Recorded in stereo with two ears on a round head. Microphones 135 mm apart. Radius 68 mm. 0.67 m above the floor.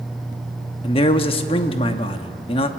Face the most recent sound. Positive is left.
turn(degrees=35)  # may be behind; listen again after turning